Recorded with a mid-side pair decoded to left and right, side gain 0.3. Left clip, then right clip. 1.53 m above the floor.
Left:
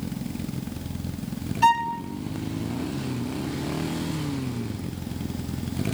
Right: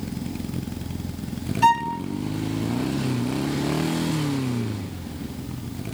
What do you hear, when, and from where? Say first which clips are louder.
1.6 s a violin: right 1 dB; 5° right, 0.7 m